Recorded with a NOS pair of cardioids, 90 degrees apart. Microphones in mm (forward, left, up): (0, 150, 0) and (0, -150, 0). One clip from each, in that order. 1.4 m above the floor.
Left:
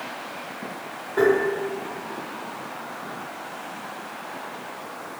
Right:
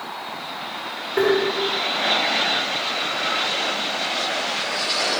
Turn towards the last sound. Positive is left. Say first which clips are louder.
# even
turn(degrees=-40)